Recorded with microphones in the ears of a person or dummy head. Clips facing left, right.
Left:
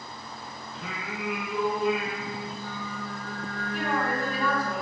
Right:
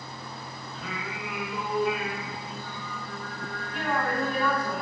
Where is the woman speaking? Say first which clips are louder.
Even; centre (ahead or behind), 4 m.